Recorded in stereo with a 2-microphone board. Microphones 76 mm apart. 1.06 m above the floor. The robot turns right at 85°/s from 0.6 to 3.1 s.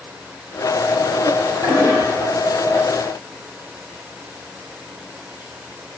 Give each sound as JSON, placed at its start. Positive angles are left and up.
{"t": 1.6, "sound": "a toilet flushing", "azimuth_deg": -65, "distance_m": 1.8}